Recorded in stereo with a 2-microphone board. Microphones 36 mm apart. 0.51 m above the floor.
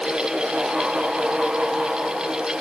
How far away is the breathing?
I don't hear breathing.